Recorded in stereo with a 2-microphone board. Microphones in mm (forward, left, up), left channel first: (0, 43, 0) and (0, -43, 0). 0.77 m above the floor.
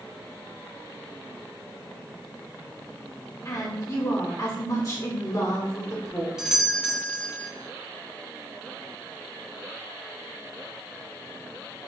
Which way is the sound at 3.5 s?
45° left (ahead or behind).